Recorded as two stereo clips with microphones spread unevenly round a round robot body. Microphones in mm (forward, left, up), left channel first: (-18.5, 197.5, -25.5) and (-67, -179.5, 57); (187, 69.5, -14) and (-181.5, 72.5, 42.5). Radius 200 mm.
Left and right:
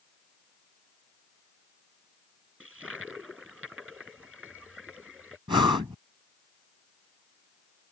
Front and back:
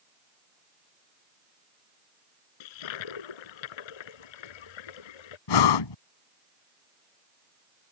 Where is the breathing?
15° right.